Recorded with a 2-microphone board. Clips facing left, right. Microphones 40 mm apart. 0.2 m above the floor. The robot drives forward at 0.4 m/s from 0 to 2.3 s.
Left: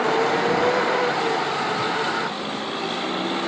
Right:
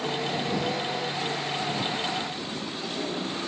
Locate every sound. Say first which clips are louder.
0.0 s a vehicle: left 9 dB; 50° left (ahead or behind); by 3.5 s 45° left (ahead or behind)